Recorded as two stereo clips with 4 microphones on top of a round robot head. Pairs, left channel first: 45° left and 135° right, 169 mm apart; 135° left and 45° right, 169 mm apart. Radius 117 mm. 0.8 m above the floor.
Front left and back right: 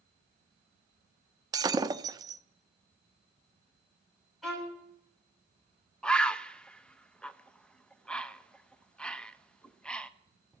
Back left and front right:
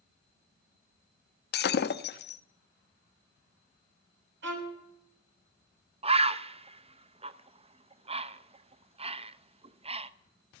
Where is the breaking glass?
160° left, 0.8 m.